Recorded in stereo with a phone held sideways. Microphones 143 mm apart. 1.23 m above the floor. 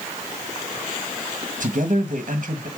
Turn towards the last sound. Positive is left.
turn(degrees=-60)  # may be behind; listen again after turning